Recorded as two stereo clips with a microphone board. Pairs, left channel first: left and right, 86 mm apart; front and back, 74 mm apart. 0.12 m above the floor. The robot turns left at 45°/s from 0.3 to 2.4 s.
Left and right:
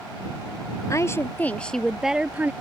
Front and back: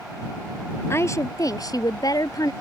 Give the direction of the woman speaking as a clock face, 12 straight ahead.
10 o'clock.